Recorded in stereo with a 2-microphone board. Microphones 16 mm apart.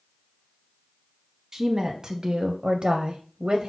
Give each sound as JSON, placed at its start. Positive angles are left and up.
{"t": 1.5, "sound": "a woman speaking", "side_deg": -25, "distance_m": 0.9}